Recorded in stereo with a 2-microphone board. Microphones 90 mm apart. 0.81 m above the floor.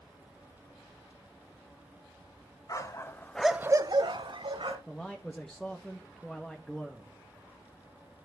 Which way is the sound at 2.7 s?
40° left (ahead or behind).